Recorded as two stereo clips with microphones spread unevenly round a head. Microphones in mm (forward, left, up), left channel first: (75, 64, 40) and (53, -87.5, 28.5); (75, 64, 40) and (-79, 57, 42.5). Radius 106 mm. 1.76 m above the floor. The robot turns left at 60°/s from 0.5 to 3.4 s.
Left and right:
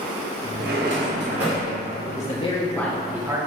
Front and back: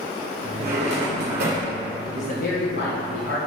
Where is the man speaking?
50° left, 1.6 m; by 3.4 s 30° right, 1.6 m.